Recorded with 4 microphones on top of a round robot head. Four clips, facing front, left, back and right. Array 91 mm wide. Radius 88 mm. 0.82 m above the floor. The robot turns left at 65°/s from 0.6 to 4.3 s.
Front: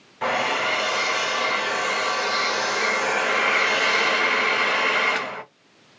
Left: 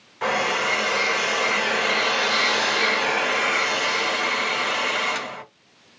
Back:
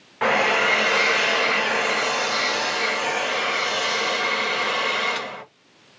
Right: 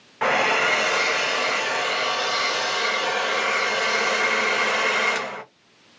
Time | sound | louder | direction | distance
0.2 | a hair dryer | right 2 dB, back 4 dB | 145° right | 0.8 m